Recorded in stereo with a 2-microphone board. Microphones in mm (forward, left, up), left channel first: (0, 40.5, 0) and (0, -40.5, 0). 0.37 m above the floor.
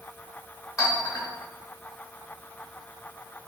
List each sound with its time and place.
0.8 s a clink: 45° left (ahead or behind), 1.8 m